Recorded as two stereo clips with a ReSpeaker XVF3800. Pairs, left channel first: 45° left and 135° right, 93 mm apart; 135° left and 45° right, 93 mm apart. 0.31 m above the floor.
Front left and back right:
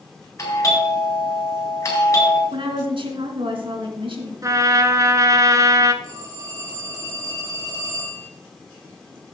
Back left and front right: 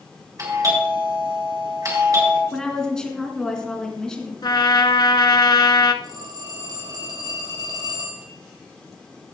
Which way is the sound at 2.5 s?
140° right.